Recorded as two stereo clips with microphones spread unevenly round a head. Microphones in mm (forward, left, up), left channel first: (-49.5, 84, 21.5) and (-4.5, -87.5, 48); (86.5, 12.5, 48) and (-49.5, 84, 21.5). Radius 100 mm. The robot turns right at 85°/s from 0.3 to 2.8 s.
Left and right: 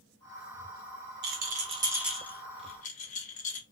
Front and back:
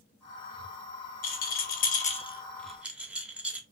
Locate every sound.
1.2 s a rattle: 55° right, 0.7 m; by 3.6 s 80° left, 0.7 m